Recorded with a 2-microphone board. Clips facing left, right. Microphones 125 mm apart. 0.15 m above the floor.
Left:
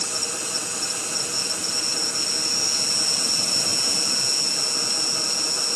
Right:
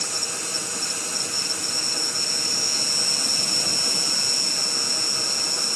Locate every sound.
0.0 s an insect: 60° right (ahead or behind), 0.7 m